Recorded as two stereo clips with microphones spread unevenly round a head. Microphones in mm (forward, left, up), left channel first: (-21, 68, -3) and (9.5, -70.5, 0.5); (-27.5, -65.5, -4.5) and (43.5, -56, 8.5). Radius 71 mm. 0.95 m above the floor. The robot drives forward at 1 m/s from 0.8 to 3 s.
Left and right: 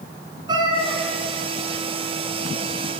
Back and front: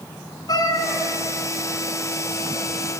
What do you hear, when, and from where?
0.5 s a cat meowing: 140° right, 3.5 m